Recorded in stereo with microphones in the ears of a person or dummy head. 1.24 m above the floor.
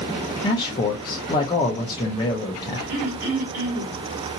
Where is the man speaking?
20° left (ahead or behind), 0.8 m.